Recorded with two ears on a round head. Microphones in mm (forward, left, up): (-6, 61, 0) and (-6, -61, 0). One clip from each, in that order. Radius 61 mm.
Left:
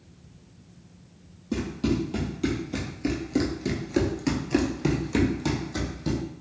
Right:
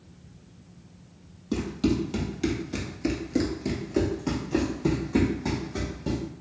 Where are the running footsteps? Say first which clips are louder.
Right 1 dB; 35° right (ahead or behind), 1.4 m; by 6.2 s 65° left (ahead or behind), 1.6 m.